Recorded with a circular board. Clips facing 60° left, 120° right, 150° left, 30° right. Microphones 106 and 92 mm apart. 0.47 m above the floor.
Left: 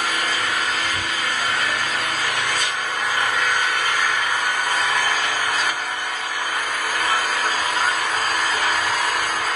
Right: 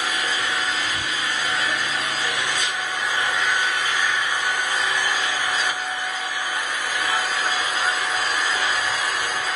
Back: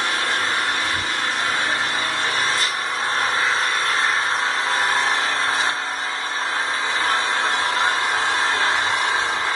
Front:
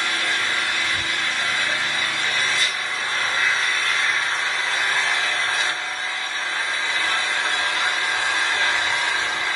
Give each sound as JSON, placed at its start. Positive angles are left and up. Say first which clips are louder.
{"t": 0.0, "sound": "an engine running", "louder": "left 2 dB, back 2 dB", "azimuth_deg": 95, "distance_m": 2.5}